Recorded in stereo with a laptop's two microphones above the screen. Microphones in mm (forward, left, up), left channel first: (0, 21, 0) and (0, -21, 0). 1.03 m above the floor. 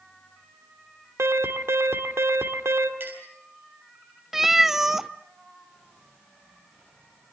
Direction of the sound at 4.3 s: 10° right (ahead or behind).